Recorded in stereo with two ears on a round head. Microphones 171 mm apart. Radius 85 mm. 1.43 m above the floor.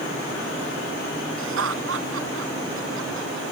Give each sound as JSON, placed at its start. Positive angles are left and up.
{"t": 1.4, "sound": "laughter", "side_deg": -75}